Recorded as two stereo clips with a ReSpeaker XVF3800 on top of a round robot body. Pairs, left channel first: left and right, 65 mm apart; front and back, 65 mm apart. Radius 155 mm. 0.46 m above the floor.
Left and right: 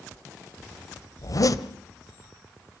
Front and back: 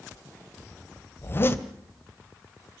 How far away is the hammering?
I don't hear hammering.